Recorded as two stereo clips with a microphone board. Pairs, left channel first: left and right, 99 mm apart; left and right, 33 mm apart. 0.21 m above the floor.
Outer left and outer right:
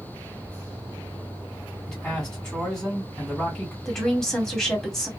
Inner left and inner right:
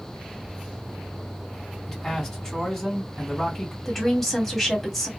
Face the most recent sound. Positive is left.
turn(degrees=5)  # may be behind; listen again after turning